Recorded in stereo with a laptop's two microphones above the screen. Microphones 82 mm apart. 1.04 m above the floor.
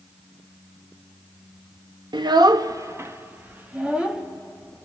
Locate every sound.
2.1 s a child speaking: 70° right (ahead or behind), 0.7 m; by 4.2 s 10° right (ahead or behind), 1.2 m